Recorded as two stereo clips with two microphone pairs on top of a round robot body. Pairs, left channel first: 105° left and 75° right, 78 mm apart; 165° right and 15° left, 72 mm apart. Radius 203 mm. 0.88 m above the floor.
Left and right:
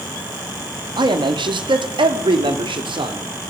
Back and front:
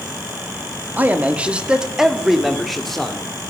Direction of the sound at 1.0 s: 50° right.